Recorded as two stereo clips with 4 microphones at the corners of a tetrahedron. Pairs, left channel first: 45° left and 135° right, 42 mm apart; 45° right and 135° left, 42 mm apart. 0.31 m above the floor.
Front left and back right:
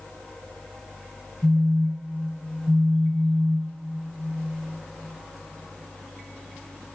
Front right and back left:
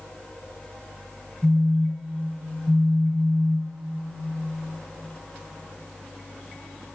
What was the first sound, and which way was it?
A phone buzzing, 155° right.